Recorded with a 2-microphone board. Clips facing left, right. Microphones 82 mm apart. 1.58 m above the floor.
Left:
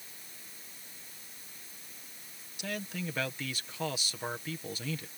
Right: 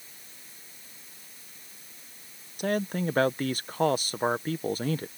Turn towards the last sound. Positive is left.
turn(degrees=-50)  # may be behind; listen again after turning